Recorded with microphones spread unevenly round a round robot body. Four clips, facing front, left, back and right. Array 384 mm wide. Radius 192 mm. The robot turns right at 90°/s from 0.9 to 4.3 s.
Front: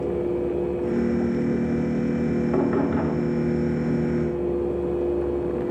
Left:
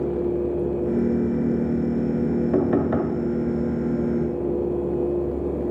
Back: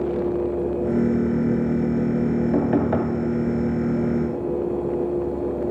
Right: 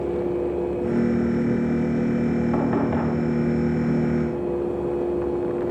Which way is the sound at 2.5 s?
100° left.